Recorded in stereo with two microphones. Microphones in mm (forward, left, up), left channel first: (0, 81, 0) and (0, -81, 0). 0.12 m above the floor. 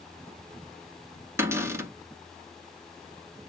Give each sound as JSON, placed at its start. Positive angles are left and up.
{"t": 1.4, "sound": "a cupboard door", "side_deg": -15, "distance_m": 0.9}